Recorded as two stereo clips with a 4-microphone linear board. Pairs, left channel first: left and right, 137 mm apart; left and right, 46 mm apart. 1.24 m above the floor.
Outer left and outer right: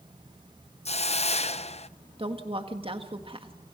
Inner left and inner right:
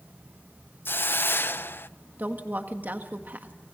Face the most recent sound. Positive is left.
turn(degrees=-40)  # may be behind; listen again after turning